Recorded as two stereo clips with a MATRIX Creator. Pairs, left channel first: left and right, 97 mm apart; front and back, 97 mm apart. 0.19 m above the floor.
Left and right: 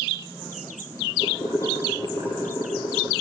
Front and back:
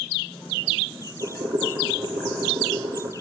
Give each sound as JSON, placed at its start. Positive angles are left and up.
{"t": 1.2, "sound": "boiling", "azimuth_deg": 140, "distance_m": 3.0}